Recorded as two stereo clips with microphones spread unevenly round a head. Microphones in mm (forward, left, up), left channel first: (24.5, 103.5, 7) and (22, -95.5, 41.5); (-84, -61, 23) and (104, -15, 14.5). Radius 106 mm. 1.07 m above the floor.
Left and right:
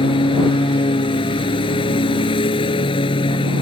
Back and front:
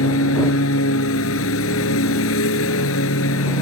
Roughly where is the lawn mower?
Behind.